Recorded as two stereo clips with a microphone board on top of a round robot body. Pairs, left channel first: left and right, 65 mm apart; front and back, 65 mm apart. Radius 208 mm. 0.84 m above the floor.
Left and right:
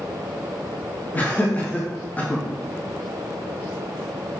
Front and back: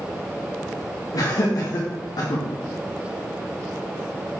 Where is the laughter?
25° left, 1.8 m.